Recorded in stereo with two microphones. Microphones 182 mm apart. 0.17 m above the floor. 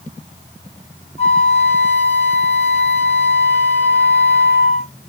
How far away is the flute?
About 1.9 m.